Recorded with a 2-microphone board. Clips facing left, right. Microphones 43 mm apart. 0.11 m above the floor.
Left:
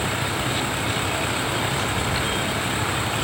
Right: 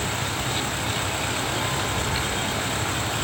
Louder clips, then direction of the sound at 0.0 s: Left 3 dB; 15° left (ahead or behind).